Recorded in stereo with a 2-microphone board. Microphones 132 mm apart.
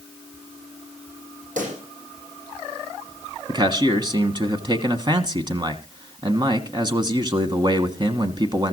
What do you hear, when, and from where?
1.6 s a pop: 80° right, 6.5 m
3.5 s a man speaking: 35° right (ahead or behind), 1.4 m